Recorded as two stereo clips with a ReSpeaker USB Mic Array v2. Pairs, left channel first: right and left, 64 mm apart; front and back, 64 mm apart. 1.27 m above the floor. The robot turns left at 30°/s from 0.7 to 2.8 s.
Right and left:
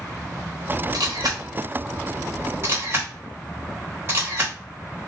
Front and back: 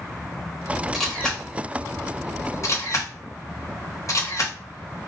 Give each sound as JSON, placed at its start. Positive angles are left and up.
{"t": 0.9, "sound": "a camera shutter", "azimuth_deg": 90, "distance_m": 1.1}